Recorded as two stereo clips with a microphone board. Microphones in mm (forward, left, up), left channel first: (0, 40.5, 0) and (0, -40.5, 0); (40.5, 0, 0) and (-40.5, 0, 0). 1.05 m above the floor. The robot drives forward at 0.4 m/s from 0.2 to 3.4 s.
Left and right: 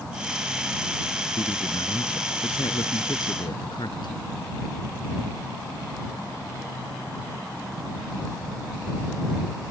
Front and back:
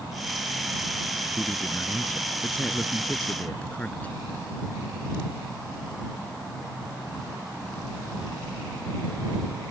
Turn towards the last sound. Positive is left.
turn(degrees=75)